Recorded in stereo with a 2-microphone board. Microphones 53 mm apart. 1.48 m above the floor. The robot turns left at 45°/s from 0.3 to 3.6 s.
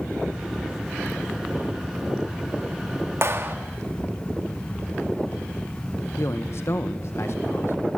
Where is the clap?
55° right (ahead or behind), 2 m; by 3.5 s 40° right (ahead or behind), 2 m.